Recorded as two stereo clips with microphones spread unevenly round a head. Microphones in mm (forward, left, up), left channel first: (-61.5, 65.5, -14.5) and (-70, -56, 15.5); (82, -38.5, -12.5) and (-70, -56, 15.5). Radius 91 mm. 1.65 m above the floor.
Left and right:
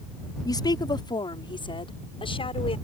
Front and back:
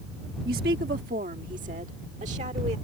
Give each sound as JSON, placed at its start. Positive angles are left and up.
{"t": 0.5, "sound": "a woman speaking", "azimuth_deg": 145}